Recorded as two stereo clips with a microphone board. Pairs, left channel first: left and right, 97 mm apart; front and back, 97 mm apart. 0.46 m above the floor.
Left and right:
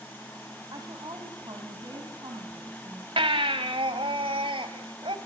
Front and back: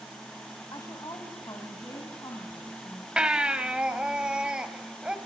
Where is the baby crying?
100° right, 1.7 m.